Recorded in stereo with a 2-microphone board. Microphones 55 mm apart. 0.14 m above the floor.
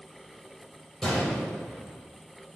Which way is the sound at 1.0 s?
10° left (ahead or behind).